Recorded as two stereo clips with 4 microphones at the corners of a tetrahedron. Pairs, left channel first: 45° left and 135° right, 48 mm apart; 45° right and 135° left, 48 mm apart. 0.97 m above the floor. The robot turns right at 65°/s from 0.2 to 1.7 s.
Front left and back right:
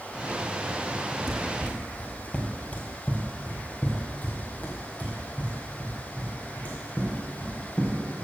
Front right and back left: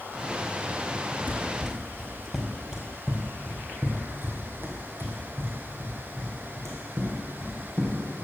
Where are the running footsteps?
40° right, 1.1 m; by 8.2 s 110° left, 3.5 m.